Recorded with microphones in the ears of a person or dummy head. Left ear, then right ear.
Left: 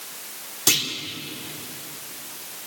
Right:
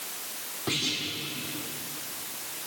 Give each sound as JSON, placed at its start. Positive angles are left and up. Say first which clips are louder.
{"t": 0.7, "sound": "a clunk", "louder": "left 8 dB", "side_deg": 80, "distance_m": 3.0}